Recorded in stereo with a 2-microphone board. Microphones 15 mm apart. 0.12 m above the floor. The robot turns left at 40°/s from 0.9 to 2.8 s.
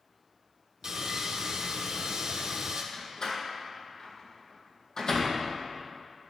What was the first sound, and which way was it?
Sawing, 40° right.